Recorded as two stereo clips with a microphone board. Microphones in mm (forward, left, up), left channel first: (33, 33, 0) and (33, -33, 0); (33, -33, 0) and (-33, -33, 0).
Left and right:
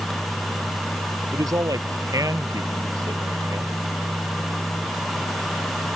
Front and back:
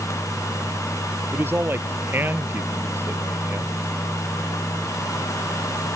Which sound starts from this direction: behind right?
A man speaking, at 1.3 s.